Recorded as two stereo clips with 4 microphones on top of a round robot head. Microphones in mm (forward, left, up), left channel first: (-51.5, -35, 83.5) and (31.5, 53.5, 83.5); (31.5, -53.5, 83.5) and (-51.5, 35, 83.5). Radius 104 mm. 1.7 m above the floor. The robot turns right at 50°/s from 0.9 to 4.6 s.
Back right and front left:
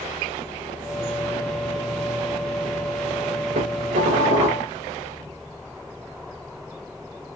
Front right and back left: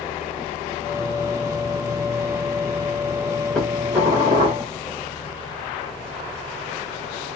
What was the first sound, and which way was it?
Dishes clattering, 35° left.